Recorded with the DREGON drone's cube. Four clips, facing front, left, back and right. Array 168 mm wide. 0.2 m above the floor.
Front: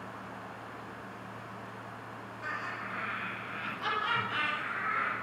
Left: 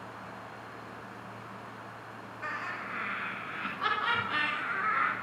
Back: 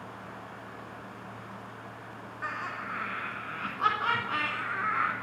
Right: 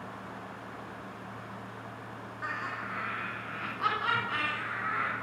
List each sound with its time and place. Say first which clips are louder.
2.4 s laughter: right 1 dB, back 3 dB; 145° right, 2.5 m; by 5.1 s 155° left, 2 m